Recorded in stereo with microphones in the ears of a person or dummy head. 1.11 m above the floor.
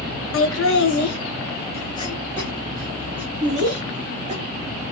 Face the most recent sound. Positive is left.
turn(degrees=-20)  # may be behind; listen again after turning